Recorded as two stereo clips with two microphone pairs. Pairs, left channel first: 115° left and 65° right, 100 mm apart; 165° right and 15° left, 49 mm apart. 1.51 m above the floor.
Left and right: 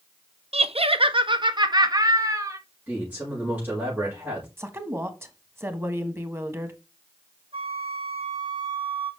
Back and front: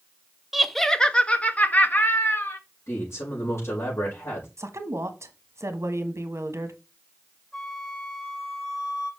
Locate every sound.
0.5 s laughter: 70° right, 0.7 m; by 2.6 s 125° right, 1.6 m
2.9 s a man speaking: 140° right, 5 m
4.6 s a woman speaking: straight ahead, 1.3 m
7.5 s a flute: 80° right, 3.5 m